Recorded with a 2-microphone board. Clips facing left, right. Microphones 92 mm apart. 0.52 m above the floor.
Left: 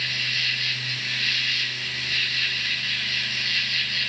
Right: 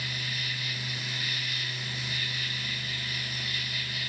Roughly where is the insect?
Left.